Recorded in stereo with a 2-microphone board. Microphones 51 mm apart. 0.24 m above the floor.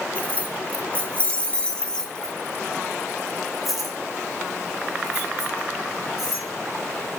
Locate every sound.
0.1 s keys jangling: 25° left (ahead or behind), 1.1 m; by 6.5 s 5° right (ahead or behind), 3 m